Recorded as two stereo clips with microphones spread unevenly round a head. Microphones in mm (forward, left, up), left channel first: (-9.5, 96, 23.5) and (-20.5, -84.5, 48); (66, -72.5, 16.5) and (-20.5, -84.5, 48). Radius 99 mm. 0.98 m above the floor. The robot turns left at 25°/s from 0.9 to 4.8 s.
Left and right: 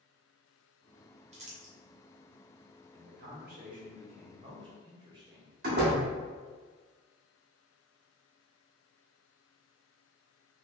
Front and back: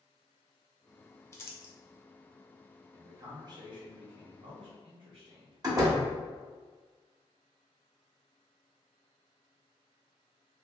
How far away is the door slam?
About 1.4 m.